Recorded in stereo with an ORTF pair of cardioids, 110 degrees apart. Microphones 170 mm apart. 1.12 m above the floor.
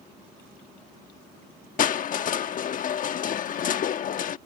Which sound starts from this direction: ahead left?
Crushing, at 1.8 s.